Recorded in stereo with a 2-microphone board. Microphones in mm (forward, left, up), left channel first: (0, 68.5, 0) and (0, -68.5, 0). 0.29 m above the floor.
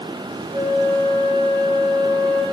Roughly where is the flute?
Right.